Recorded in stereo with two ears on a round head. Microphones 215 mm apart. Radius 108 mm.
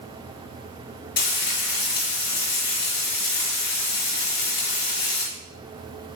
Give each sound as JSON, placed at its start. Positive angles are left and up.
{"t": 1.2, "sound": "frying", "side_deg": 40, "distance_m": 4.5}